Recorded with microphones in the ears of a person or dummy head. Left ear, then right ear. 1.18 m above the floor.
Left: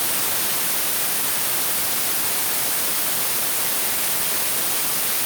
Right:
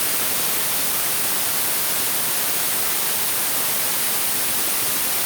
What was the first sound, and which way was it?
Only background noise.